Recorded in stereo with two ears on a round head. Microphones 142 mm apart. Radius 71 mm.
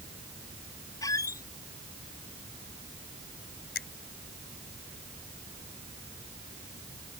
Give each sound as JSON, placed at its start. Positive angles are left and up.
{"t": 1.0, "sound": "a squeak", "side_deg": 20}
{"t": 3.8, "sound": "a finger snap", "side_deg": 80}